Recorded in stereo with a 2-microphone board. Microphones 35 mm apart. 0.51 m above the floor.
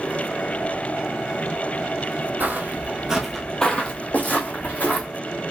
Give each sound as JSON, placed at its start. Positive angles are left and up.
{"t": 2.4, "sound": "footsteps", "side_deg": -60, "distance_m": 0.9}